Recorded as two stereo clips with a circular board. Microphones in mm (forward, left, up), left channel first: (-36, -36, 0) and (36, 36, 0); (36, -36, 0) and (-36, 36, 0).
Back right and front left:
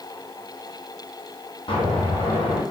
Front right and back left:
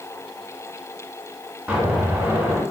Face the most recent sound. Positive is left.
turn(degrees=-145)